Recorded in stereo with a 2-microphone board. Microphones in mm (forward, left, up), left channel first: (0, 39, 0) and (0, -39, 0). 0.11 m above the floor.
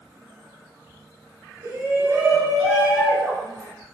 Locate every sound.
1.6 s a shout: 30° right (ahead or behind), 1.9 m; by 3.7 s 20° left (ahead or behind), 1.8 m